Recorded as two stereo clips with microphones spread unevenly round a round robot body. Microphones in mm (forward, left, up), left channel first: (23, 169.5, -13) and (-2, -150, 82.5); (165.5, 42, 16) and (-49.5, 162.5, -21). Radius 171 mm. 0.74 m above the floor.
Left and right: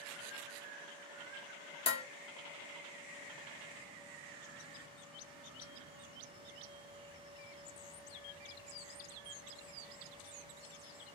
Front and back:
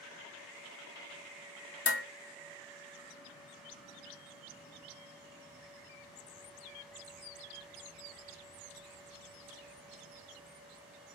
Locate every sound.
1.9 s dishes clattering: 15° left, 0.8 m